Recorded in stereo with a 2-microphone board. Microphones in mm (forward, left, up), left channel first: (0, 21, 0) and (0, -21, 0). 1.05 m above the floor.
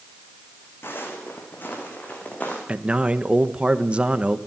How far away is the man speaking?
About 1.2 m.